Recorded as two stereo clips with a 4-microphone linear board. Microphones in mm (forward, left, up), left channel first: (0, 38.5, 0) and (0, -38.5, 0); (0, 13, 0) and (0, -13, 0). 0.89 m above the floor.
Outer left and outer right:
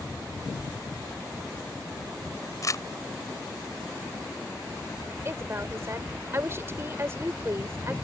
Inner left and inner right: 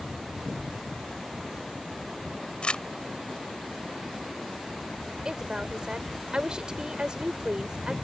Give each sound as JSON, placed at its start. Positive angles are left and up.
{"t": 2.6, "sound": "crumpling", "side_deg": 45}
{"t": 5.2, "sound": "a woman speaking", "side_deg": -35}